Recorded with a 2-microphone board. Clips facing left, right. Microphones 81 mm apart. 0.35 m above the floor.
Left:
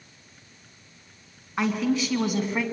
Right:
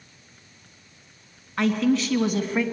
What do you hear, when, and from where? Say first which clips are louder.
1.6 s a man speaking: right 3 dB; 10° left (ahead or behind), 3.5 m; by 2.6 s 5° left (ahead or behind), 3 m